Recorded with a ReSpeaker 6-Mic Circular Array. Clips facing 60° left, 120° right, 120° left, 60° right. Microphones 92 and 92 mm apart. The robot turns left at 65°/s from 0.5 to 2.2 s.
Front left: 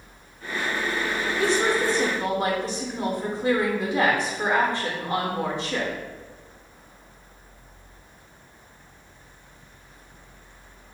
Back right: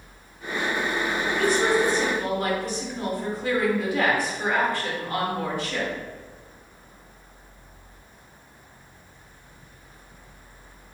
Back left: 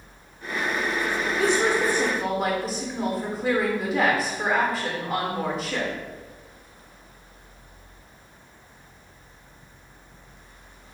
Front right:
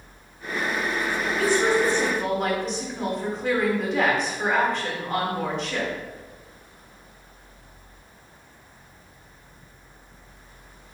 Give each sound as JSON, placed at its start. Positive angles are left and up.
{"t": 1.4, "sound": "a woman speaking", "azimuth_deg": 95, "distance_m": 0.8}